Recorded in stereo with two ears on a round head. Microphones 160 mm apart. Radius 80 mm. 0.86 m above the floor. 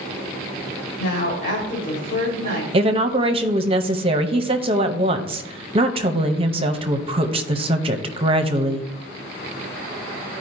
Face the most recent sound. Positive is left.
turn(degrees=-30)  # may be behind; listen again after turning